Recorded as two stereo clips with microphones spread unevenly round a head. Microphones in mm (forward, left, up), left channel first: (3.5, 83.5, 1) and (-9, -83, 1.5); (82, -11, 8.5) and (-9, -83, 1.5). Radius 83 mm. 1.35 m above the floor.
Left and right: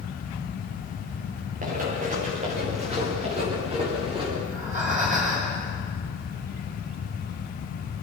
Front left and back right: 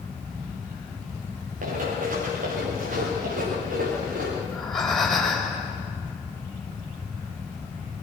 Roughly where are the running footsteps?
Behind right.